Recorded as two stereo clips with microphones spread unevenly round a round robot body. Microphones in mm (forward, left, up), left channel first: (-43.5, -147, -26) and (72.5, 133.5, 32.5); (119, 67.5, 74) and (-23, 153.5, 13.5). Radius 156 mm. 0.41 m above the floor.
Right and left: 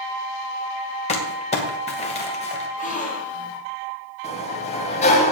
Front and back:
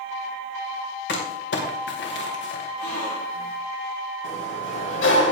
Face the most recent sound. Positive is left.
turn(degrees=-50)